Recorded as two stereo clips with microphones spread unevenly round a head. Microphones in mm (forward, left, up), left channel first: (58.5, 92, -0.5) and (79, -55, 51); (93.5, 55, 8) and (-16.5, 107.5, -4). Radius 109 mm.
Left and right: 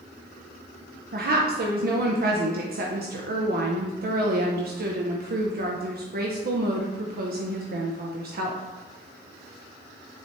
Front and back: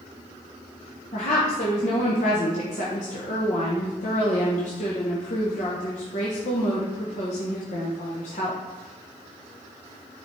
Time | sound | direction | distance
1.1 | a woman speaking | 55° right | 1.0 m